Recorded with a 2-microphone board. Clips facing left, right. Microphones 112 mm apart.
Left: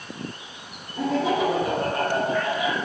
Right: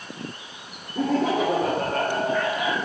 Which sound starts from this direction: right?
Laughter, at 0.9 s.